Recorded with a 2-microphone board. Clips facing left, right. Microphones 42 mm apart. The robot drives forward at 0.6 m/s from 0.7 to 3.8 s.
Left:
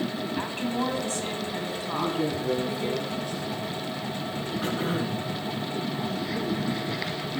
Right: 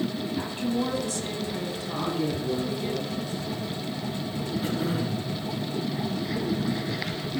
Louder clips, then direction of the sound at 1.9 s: Left 1 dB; 65° left (ahead or behind).